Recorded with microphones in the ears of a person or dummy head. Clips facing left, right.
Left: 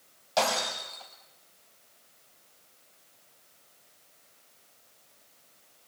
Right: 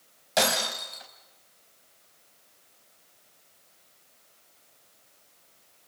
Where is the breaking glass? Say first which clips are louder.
Right 1 dB; 20° right (ahead or behind), 4 m.